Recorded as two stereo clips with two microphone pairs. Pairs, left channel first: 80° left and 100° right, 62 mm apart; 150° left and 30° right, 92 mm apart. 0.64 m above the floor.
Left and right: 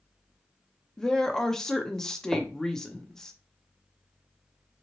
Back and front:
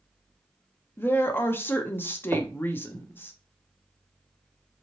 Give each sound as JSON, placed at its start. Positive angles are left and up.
{"t": 1.0, "sound": "a woman speaking", "azimuth_deg": 150, "distance_m": 0.6}
{"t": 2.3, "sound": "knocking", "azimuth_deg": -65, "distance_m": 0.5}